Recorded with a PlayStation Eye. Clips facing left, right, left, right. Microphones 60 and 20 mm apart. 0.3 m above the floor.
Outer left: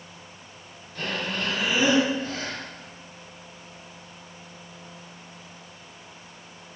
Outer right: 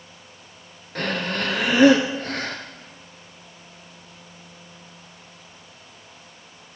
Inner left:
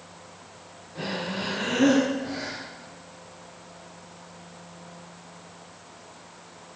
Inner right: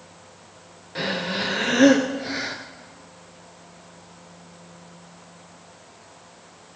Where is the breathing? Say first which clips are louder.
Outer right 4 dB, inner right 5 dB; 80° right, 1.7 m.